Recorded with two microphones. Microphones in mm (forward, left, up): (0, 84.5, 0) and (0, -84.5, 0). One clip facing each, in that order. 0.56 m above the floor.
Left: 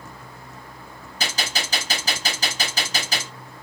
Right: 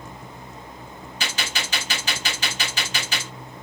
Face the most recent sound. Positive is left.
turn(degrees=40)  # may be behind; listen again after turning